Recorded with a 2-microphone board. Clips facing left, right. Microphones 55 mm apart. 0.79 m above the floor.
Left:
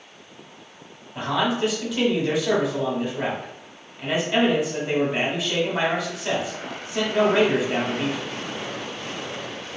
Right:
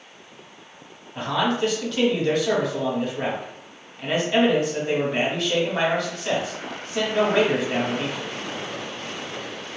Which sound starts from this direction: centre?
A man speaking, at 1.1 s.